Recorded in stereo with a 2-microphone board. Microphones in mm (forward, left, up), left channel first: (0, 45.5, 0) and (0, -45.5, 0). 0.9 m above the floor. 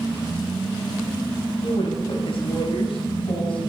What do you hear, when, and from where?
1.6 s a woman speaking: 80° left, 5 m; by 3.7 s 75° left (ahead or behind), 7 m